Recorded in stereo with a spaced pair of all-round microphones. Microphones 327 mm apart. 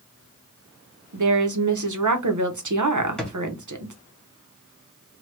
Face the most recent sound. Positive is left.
turn(degrees=0)  # may be behind; listen again after turning